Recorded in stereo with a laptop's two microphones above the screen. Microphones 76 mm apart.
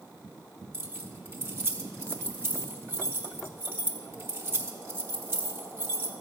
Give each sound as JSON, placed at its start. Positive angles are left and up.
{"t": 0.7, "sound": "keys jangling", "side_deg": -30, "distance_m": 0.9}